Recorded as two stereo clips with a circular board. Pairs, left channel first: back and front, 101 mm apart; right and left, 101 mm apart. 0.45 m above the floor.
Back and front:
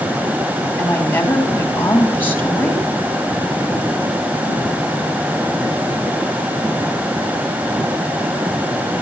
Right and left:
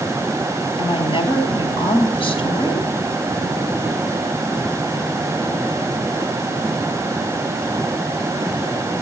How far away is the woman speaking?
About 3 m.